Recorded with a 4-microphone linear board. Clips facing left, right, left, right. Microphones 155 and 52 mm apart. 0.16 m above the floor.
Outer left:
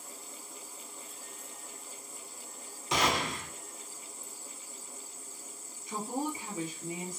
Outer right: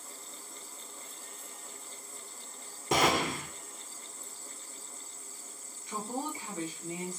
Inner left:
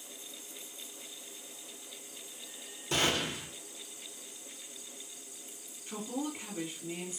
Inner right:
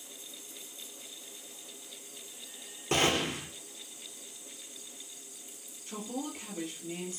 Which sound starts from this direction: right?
A gunshot, at 2.9 s.